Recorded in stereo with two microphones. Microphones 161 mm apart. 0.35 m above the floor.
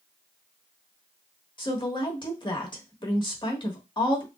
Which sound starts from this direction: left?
A woman speaking, at 1.6 s.